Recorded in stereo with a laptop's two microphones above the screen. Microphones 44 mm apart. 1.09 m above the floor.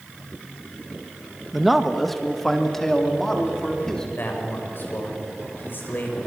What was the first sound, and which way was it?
A man speaking, 5° right (ahead or behind).